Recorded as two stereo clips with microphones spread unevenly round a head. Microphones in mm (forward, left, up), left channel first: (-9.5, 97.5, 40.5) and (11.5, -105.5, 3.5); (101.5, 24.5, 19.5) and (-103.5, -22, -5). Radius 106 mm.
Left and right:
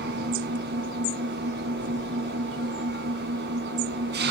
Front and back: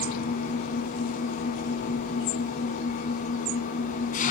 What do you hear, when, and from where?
0.0 s an engine running: 40° right, 3 m